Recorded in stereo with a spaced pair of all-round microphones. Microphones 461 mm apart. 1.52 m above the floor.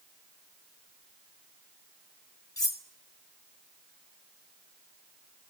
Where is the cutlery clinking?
65° left (ahead or behind), 1.5 m.